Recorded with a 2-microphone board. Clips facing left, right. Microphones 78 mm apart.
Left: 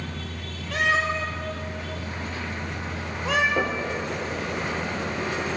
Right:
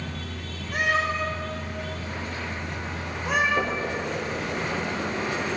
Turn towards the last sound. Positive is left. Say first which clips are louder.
# left 1 dB
turn(degrees=50)  # may be behind; listen again after turning